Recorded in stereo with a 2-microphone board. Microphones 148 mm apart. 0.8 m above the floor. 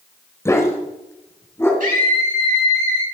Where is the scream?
70° right (ahead or behind), 7 m.